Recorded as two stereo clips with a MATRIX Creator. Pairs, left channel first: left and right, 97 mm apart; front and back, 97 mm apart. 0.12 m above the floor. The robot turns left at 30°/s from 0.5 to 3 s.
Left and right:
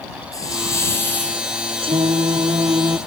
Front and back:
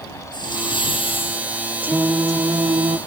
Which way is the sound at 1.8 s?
110° right.